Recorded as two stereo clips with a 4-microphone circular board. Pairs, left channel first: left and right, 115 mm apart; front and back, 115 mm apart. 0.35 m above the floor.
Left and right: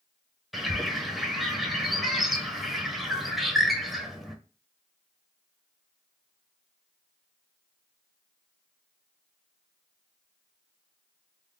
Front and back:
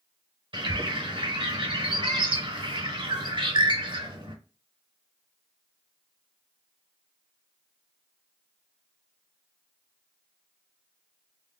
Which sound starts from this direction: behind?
A bird, at 0.5 s.